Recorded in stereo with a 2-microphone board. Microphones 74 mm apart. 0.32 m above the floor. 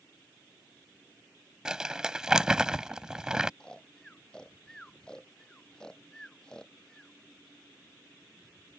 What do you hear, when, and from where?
1.6 s crumpling: 10° right (ahead or behind)
3.6 s snoring: 10° left (ahead or behind)